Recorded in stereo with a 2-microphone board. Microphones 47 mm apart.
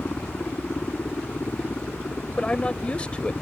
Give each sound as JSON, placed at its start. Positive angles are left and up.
{"t": 0.0, "sound": "a helicopter", "side_deg": 50}
{"t": 2.4, "sound": "a man speaking", "side_deg": 25}